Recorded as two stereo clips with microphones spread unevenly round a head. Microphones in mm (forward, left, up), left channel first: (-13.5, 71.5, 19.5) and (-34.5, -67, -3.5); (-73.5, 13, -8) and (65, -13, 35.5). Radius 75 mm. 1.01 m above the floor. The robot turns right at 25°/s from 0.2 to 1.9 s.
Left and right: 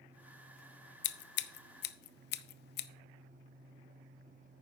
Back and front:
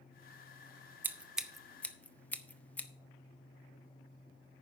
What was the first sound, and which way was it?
Scissors, 70° left.